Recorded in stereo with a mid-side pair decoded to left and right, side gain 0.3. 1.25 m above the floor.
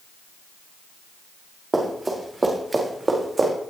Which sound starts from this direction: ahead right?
Running footsteps, at 1.7 s.